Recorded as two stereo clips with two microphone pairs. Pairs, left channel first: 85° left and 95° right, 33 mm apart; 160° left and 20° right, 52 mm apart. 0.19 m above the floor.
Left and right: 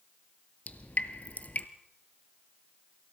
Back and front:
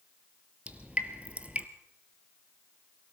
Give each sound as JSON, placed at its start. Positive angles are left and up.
{"t": 0.7, "sound": "dripping", "azimuth_deg": 45, "distance_m": 1.2}